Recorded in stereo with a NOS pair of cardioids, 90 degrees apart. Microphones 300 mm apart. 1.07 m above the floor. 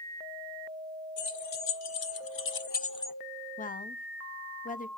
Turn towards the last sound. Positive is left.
turn(degrees=25)